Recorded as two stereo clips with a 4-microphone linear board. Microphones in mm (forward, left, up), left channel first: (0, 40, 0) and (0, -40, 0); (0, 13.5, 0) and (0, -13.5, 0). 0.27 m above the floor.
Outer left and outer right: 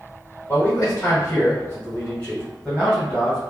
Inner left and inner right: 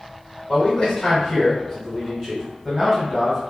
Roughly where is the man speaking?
Left.